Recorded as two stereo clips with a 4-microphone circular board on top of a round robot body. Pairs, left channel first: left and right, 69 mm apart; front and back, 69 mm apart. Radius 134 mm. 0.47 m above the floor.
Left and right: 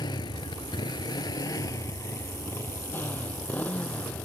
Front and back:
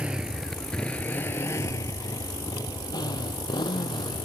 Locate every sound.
0.0 s a motorcycle: 105° left; by 4.2 s 15° left